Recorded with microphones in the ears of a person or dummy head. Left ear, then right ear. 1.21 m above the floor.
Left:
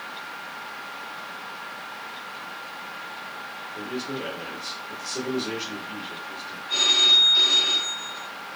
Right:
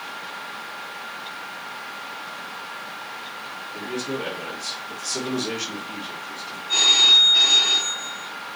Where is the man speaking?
65° right (ahead or behind), 1.9 m.